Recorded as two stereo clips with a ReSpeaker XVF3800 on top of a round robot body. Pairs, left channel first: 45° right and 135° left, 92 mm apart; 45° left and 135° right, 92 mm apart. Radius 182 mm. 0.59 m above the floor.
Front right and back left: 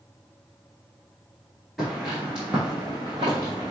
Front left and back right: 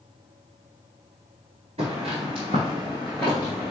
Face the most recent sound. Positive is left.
turn(degrees=80)